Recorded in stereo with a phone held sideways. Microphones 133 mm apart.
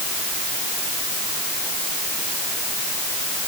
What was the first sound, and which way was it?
Only background noise.